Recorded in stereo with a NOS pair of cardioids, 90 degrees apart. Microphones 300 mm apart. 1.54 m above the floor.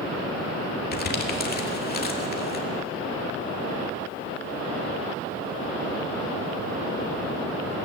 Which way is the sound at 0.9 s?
30° left.